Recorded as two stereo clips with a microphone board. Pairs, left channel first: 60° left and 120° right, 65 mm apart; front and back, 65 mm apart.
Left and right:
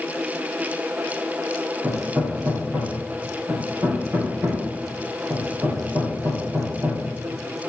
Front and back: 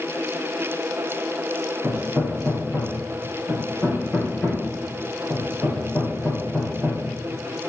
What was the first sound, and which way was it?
Hammering, 70° right.